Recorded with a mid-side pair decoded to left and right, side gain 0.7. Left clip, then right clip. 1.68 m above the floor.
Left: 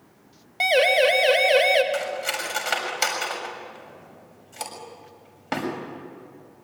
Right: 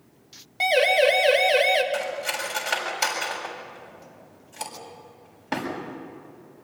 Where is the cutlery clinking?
15° left, 6.5 m.